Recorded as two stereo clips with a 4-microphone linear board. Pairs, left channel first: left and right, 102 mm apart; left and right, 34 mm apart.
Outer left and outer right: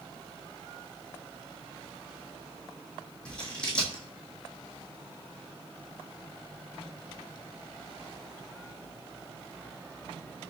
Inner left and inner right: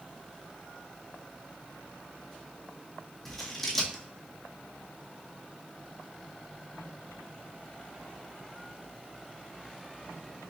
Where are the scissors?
10° left (ahead or behind), 1.2 m.